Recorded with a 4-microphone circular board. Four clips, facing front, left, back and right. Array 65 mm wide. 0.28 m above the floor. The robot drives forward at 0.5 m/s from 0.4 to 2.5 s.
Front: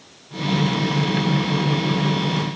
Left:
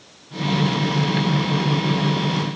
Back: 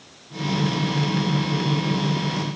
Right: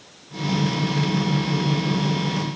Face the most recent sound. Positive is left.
No sound to turn to.